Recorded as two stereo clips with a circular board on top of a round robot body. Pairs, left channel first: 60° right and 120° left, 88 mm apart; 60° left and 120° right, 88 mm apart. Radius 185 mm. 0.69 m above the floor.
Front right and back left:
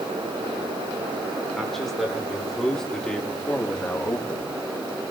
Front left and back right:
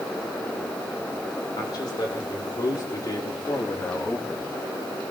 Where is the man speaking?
25° left, 3.5 m; by 4.5 s 20° right, 1.2 m.